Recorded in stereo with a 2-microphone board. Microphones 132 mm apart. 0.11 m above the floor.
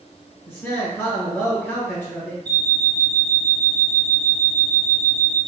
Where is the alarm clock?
55° left (ahead or behind), 1.7 m.